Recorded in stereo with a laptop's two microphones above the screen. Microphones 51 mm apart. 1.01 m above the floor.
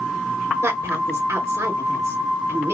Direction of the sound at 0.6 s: 75° right (ahead or behind).